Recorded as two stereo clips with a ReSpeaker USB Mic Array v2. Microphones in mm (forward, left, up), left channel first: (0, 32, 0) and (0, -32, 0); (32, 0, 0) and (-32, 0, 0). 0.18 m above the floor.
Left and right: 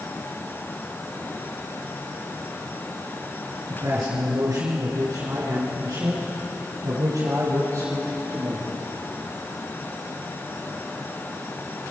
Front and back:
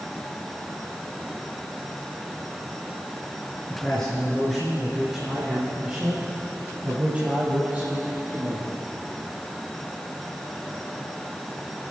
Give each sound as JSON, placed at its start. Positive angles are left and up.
{"t": 3.7, "sound": "a man speaking", "azimuth_deg": -70, "distance_m": 2.5}